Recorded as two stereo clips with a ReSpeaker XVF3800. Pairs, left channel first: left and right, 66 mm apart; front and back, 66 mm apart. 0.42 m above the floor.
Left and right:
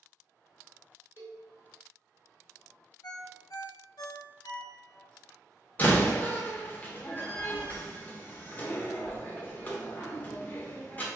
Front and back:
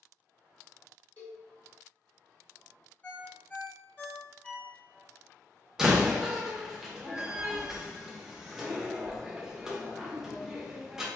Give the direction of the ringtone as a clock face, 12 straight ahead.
10 o'clock.